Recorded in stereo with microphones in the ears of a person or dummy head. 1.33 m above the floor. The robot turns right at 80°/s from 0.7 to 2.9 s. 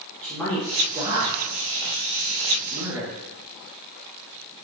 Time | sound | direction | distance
0.2 | a man speaking | 10° left (ahead or behind) | 1.4 m